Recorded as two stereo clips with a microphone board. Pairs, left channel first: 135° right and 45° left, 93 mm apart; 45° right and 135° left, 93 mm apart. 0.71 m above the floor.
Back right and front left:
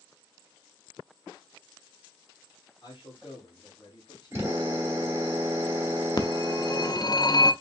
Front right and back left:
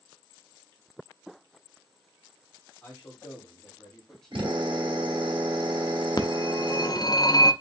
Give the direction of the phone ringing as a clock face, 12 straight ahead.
3 o'clock.